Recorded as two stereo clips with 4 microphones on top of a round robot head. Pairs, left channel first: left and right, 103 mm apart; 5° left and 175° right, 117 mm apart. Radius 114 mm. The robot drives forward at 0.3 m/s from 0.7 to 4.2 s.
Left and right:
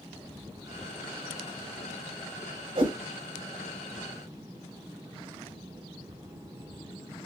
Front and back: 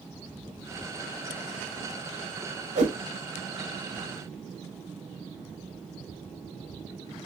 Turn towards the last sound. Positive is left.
turn(degrees=-155)